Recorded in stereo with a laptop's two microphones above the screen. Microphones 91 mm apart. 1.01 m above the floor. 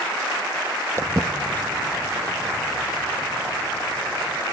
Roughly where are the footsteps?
Right.